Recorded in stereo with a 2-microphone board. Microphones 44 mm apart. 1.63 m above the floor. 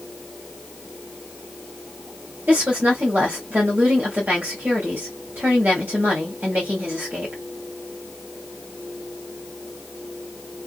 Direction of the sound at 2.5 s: 45° right (ahead or behind).